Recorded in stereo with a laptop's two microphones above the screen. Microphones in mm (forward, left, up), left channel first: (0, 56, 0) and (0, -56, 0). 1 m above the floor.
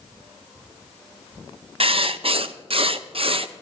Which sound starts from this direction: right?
Writing, at 1.8 s.